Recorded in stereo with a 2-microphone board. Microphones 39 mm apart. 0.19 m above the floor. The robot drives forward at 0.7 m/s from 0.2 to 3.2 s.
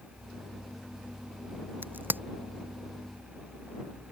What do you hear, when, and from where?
1.8 s a crack: 65° right (ahead or behind); by 2.2 s 60° right (ahead or behind)